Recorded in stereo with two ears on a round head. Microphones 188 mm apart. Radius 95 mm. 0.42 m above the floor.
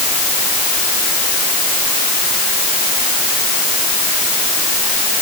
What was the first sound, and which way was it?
Only background noise.